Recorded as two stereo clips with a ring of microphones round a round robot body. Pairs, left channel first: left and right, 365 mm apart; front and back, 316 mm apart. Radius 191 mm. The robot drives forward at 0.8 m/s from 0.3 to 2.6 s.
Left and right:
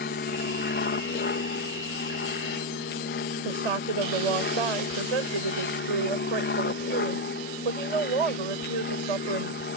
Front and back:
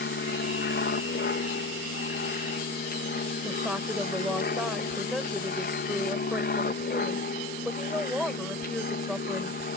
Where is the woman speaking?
90° right.